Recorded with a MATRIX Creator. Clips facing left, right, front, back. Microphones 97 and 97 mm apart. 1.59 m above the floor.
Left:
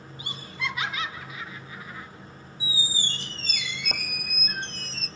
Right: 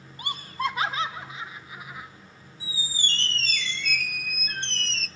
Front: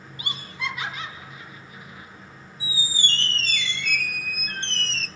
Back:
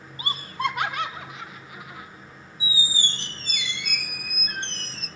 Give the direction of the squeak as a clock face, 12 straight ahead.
7 o'clock.